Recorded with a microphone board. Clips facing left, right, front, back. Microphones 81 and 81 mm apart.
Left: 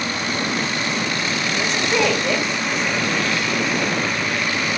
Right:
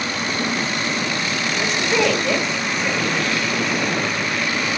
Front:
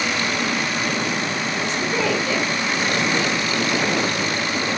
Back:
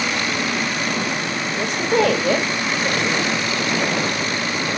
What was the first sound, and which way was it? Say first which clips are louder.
A woman speaking: right 1 dB, back 7 dB; 175° right.